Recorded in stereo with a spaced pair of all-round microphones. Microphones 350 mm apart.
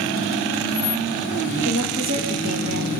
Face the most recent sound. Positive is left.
turn(degrees=-50)  # may be behind; listen again after turning